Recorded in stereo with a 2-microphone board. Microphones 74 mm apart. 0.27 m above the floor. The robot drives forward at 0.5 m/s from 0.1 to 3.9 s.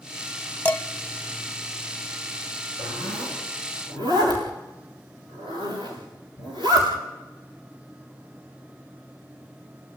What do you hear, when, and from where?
0.7 s dishes clattering: 20° left (ahead or behind), 0.9 m; by 0.8 s 25° left (ahead or behind), 0.9 m
2.8 s a zipper: 90° right, 9 m; by 6.9 s 85° right, 9 m